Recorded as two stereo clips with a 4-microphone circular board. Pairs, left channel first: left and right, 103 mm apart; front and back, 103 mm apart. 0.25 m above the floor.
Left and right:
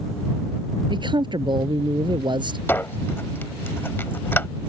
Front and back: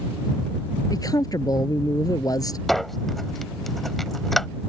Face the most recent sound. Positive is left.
turn(degrees=85)